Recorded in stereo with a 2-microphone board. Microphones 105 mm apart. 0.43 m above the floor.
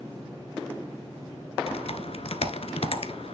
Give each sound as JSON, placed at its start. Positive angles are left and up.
{"t": 1.7, "sound": "typing on a keyboard", "side_deg": 65, "distance_m": 1.0}